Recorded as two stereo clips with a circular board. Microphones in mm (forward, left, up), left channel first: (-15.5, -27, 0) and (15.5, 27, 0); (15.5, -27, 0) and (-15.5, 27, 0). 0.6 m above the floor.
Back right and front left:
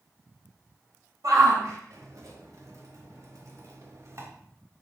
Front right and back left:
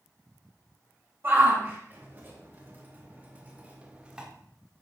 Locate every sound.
1.2 s a shout: 65° left, 3.5 m; by 4.3 s 45° left, 1.5 m